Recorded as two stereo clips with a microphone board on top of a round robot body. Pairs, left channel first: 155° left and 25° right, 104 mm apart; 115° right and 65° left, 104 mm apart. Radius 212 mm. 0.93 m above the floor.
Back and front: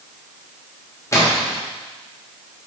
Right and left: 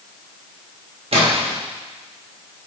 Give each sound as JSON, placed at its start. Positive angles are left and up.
{"t": 1.1, "sound": "a splash", "azimuth_deg": 95, "distance_m": 1.6}